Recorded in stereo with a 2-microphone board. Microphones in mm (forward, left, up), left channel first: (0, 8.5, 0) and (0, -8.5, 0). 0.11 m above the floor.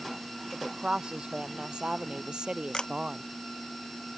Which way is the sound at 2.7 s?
45° left (ahead or behind).